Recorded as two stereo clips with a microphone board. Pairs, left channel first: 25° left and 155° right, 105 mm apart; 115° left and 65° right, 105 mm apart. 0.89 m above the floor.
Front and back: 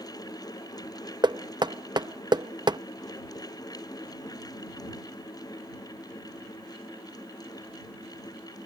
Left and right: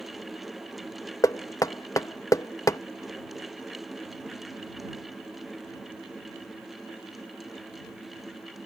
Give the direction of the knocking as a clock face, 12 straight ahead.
7 o'clock.